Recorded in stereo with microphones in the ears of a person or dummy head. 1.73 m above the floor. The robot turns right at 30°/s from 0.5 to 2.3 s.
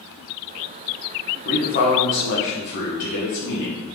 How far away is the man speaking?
About 1.1 m.